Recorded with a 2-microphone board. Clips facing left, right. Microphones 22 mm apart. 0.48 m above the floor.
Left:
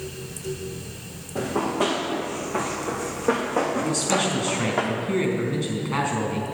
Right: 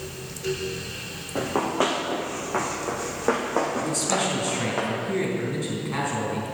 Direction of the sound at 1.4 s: 45° right (ahead or behind).